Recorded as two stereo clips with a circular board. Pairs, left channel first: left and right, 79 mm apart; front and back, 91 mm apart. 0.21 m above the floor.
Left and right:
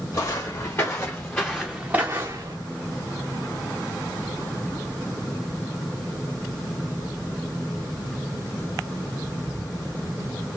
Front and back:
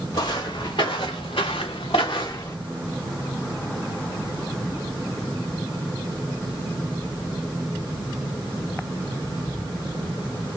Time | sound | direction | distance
0.1 | footsteps | 40° left | 1.6 m